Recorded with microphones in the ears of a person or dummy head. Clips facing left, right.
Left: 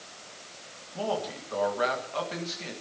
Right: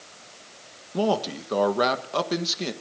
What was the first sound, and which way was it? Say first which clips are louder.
A man speaking: right 7 dB; 65° right (ahead or behind).